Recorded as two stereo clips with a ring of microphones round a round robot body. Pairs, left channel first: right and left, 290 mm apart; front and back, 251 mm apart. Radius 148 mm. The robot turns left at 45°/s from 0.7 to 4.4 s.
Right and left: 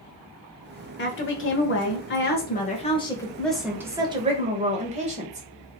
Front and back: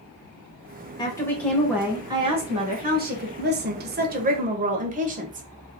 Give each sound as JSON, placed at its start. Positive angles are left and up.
{"t": 1.0, "sound": "a woman speaking", "azimuth_deg": -65, "distance_m": 1.2}